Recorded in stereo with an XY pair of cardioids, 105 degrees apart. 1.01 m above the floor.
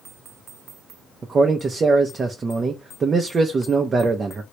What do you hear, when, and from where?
1.2 s a man speaking: 40° right, 0.7 m